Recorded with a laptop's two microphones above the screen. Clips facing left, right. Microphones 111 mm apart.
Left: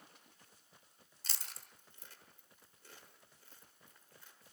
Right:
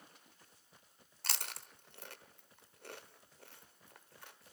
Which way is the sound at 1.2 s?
60° right (ahead or behind).